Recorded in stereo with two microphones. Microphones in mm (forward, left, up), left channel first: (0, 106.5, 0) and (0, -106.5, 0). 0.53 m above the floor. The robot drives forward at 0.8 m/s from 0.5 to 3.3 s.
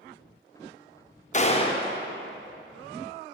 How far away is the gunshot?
About 0.6 m.